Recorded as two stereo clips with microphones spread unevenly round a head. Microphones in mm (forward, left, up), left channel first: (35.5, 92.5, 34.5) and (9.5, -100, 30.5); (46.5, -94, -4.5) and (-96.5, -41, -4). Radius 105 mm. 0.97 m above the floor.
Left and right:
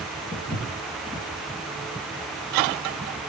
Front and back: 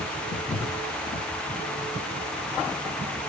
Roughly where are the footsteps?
Ahead.